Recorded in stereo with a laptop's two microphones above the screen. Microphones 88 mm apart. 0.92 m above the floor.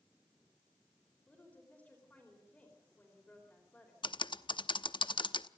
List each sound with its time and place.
1.3 s a woman speaking: 15° left (ahead or behind), 4 m
4.0 s typing on a keyboard: 65° left (ahead or behind), 0.8 m